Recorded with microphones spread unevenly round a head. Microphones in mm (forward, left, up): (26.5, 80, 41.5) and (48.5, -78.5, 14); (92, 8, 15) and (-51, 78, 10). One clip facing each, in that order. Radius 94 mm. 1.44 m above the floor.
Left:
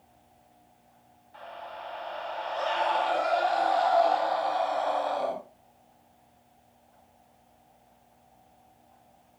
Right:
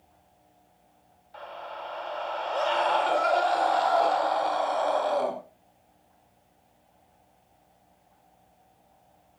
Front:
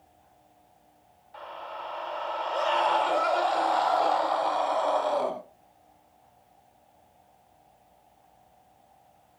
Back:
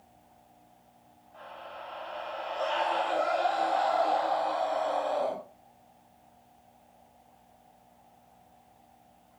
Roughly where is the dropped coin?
No dropped coin in this recording.